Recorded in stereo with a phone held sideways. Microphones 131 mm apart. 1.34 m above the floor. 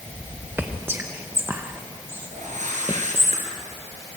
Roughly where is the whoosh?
Right.